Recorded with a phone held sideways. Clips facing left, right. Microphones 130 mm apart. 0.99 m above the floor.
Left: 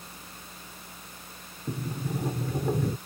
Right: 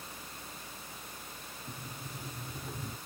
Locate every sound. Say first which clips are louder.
1.7 s a sliding door: left 15 dB; 75° left (ahead or behind)